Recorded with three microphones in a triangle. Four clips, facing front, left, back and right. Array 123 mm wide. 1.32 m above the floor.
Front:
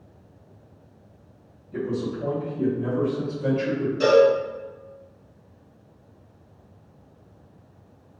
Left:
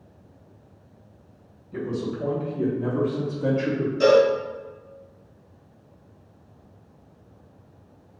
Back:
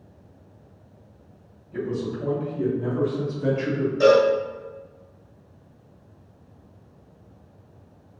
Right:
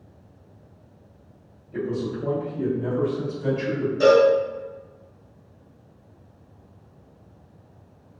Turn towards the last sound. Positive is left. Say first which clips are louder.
# right 1 dB, even
turn(degrees=-150)